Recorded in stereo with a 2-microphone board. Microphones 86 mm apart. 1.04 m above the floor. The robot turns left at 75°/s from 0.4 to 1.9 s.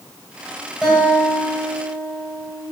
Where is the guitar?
Straight ahead, 3 m; by 2.6 s 85° right, 3 m.